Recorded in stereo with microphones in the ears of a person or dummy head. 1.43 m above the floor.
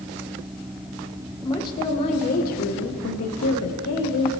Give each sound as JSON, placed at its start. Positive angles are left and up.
{"t": 1.4, "sound": "a woman speaking", "side_deg": 20, "distance_m": 1.4}